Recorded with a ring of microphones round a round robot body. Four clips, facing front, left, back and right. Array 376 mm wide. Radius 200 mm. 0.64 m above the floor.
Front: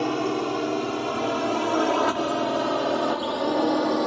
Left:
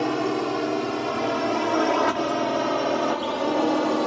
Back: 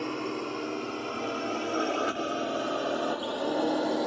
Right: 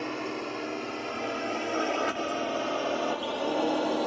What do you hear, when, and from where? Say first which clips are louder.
0.0 s a drone: left 10 dB, front 8 dB; 55° left